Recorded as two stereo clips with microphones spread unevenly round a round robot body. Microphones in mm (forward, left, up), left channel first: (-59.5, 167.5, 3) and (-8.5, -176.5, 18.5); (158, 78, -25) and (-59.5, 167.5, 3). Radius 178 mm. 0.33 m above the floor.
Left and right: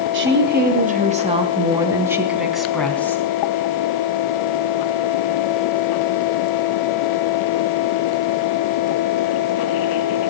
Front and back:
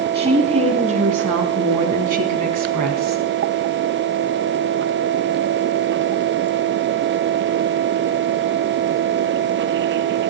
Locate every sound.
0.1 s a woman speaking: 140° right, 3.5 m; by 3.2 s straight behind, 4 m